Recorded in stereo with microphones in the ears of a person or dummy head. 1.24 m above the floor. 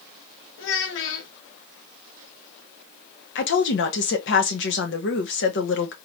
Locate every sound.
0.6 s a child speaking: 60° left (ahead or behind), 1.0 m
3.4 s a woman speaking: 65° left (ahead or behind), 1.0 m